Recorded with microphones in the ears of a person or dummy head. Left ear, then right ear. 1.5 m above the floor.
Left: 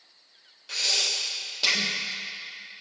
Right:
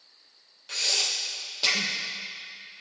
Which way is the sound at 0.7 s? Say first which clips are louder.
Left 1 dB; 5° right (ahead or behind).